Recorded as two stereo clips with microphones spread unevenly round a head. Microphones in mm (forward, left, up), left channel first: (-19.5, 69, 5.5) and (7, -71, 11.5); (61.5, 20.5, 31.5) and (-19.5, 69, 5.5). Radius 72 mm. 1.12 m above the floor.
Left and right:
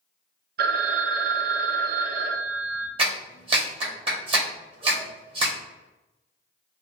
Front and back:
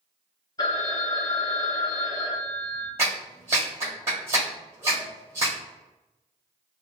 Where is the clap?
135° right, 1.3 m.